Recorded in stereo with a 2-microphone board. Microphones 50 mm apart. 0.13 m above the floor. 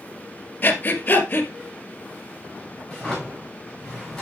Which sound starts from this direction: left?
Breathing, at 0.6 s.